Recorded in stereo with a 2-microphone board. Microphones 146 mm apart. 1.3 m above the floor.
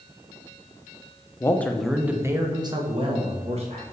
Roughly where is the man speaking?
Centre.